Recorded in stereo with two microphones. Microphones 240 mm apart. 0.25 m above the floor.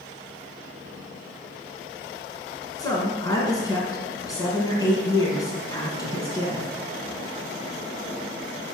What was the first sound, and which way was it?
A woman speaking, 15° left (ahead or behind).